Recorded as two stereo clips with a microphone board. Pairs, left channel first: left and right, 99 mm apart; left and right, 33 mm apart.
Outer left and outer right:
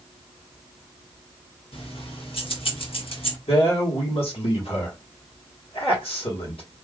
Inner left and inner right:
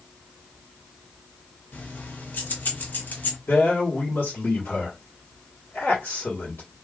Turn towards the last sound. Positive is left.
turn(degrees=70)  # may be behind; listen again after turning